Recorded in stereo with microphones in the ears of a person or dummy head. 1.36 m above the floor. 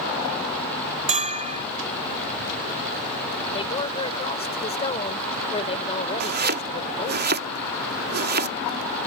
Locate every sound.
1.1 s a bell: 35° right (ahead or behind)
3.5 s a woman speaking: 30° left (ahead or behind)
6.2 s chopping: 50° right (ahead or behind)